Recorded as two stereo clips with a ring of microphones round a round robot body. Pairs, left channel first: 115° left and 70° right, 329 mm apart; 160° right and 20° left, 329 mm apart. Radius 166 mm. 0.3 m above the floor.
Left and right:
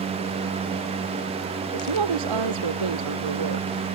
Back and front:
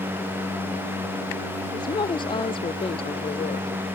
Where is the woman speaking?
80° right; by 4.0 s 85° right.